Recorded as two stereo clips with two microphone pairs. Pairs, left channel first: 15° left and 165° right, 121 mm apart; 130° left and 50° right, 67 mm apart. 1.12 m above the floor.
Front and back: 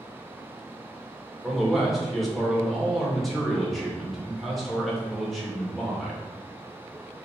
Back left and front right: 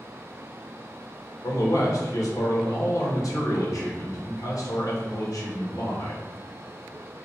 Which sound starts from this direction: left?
A man speaking, at 1.4 s.